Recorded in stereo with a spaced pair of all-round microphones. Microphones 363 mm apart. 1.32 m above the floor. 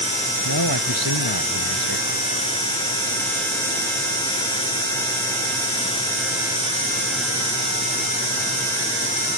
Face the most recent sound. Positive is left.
turn(degrees=85)